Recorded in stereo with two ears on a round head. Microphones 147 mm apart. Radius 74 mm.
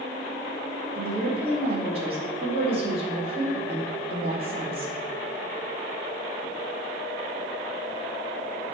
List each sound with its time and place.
0.9 s a woman speaking: 35° right (ahead or behind), 2.5 m